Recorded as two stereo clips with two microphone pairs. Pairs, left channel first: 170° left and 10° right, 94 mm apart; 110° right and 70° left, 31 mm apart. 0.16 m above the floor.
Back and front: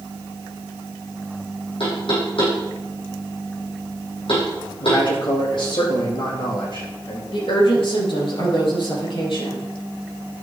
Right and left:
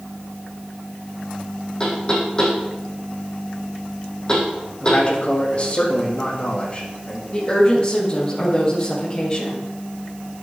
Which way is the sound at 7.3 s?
175° right.